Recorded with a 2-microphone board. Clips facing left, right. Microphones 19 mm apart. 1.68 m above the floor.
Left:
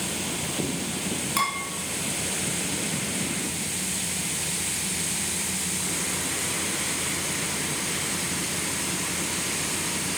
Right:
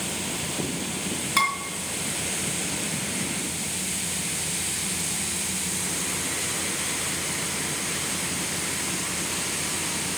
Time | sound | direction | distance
1.4 | dishes clattering | 15° right (ahead or behind) | 3 m